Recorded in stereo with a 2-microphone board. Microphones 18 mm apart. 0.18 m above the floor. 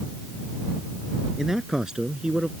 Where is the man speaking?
30° right (ahead or behind); by 2.5 s 45° right (ahead or behind).